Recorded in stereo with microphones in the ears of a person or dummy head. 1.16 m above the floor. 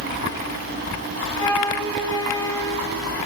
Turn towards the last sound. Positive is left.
turn(degrees=15)  # may be behind; listen again after turning